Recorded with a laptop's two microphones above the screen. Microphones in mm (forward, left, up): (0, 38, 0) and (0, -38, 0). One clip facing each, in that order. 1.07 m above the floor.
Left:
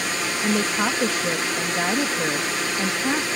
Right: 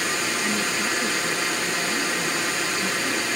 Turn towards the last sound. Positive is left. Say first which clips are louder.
# left 3 dB
turn(degrees=65)  # may be behind; listen again after turning